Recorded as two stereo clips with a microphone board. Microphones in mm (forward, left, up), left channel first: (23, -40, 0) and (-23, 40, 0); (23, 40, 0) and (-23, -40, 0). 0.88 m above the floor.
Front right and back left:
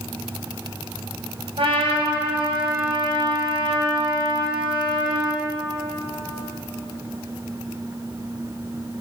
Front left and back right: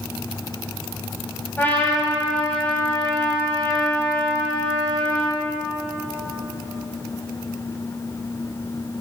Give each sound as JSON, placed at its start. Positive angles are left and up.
{"t": 1.6, "sound": "a trumpet", "azimuth_deg": 125, "distance_m": 3.5}